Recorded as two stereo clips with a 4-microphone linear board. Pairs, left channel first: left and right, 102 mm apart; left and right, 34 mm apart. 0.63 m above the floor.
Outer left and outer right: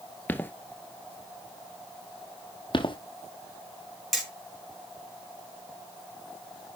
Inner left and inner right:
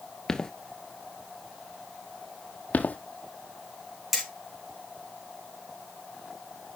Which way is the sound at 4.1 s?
Centre (ahead or behind).